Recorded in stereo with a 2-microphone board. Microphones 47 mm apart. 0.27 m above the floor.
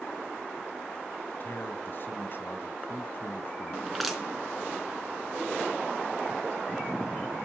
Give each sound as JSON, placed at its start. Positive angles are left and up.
{"t": 1.3, "sound": "a man speaking", "side_deg": 45, "distance_m": 1.7}
{"t": 3.9, "sound": "crushing", "side_deg": 0, "distance_m": 3.5}